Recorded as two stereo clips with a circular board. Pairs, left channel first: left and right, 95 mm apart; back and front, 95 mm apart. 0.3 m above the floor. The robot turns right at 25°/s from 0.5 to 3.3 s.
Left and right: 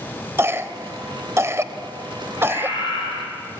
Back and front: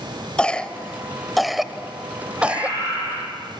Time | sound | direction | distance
0.4 | a cough | 115° right | 0.9 m
2.4 | a scream | 45° left | 9 m